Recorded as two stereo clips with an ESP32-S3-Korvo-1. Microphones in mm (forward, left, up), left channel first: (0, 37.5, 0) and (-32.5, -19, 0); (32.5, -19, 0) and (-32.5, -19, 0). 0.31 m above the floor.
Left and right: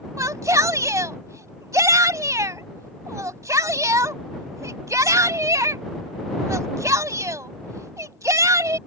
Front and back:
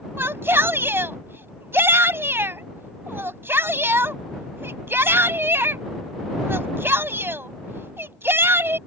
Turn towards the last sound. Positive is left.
turn(degrees=-135)